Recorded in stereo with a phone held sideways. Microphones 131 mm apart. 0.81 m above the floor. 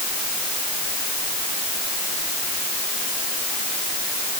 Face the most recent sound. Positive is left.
No sound to turn to.